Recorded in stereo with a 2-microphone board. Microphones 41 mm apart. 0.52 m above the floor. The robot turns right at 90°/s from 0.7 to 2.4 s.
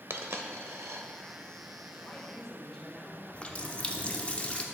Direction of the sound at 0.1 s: 80° right.